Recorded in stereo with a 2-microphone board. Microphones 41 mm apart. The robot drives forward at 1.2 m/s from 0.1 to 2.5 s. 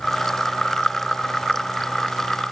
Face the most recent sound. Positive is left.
No sound to turn to.